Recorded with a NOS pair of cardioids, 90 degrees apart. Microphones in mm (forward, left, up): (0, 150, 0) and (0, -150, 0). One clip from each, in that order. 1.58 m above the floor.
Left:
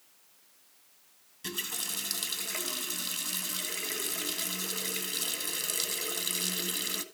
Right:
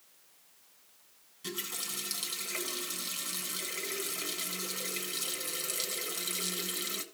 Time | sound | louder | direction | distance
1.4 | a running tap | left 3 dB | 25° left | 1.8 m